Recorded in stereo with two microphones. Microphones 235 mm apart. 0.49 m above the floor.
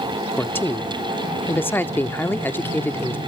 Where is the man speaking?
10° left (ahead or behind), 0.7 m.